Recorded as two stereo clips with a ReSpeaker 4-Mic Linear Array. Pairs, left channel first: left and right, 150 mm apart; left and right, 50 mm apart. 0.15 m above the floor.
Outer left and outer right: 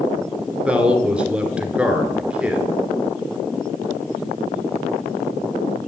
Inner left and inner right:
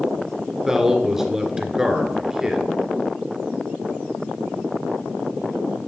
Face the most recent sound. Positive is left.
turn(degrees=-10)  # may be behind; listen again after turning